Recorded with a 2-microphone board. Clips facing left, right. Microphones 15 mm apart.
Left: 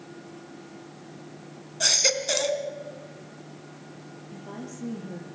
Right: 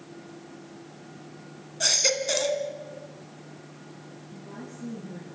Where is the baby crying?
5° left (ahead or behind), 2.0 m.